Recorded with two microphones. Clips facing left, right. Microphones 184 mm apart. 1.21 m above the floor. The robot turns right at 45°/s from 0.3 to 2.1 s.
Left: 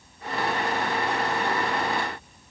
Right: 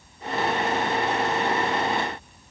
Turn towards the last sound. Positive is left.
No sound to turn to.